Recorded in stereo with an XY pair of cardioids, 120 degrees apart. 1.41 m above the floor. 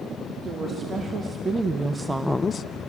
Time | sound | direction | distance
0.4 | a woman speaking | 40° right | 3 m